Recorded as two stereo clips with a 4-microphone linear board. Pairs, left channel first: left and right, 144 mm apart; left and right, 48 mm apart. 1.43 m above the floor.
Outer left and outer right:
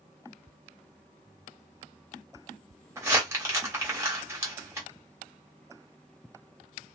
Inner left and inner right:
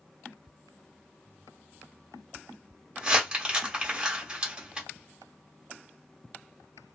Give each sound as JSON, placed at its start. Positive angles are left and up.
{"t": 3.0, "sound": "crumpling", "side_deg": -20, "distance_m": 1.4}